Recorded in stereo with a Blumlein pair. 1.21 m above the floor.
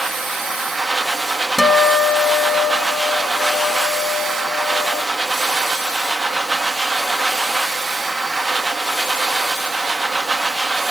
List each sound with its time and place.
0.0 s a machine running: 5° right, 0.9 m
1.6 s a guitar: 5° left, 0.9 m